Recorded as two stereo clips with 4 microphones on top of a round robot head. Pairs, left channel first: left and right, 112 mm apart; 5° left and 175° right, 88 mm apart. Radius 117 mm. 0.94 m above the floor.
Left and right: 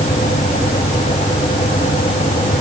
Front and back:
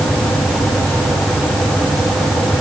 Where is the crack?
I don't hear a crack.